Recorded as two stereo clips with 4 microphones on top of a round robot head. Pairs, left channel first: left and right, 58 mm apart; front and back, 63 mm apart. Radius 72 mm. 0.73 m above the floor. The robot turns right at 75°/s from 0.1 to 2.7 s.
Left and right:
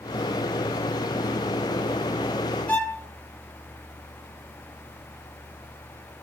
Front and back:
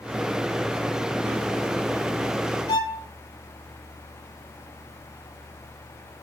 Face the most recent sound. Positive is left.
turn(degrees=25)